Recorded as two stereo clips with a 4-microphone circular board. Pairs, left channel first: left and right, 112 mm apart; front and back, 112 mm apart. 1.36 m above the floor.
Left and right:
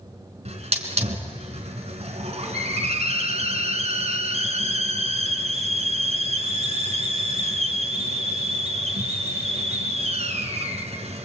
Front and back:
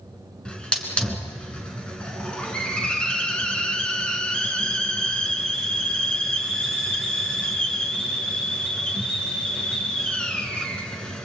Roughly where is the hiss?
Right.